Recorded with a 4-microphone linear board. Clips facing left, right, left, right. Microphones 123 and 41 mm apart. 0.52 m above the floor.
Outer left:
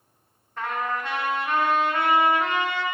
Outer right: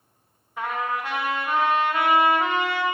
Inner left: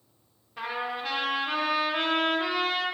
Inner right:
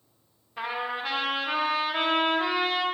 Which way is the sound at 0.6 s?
10° right (ahead or behind).